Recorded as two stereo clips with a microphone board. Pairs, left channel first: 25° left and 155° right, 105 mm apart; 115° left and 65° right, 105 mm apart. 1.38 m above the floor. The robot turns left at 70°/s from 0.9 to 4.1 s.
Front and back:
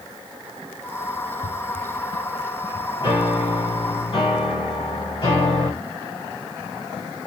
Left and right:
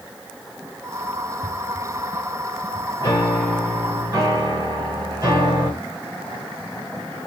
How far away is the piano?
About 2.5 m.